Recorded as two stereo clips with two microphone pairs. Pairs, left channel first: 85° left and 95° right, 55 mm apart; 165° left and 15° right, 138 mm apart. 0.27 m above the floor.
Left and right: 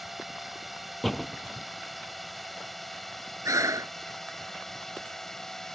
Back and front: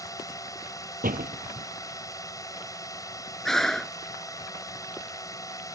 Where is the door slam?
5° right.